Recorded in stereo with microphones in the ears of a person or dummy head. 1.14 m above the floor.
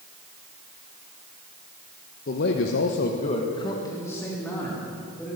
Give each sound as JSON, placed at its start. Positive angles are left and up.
{"t": 2.3, "sound": "a man speaking", "side_deg": 50, "distance_m": 1.0}